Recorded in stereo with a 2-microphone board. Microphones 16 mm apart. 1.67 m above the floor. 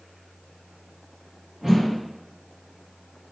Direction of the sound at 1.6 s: 40° right (ahead or behind).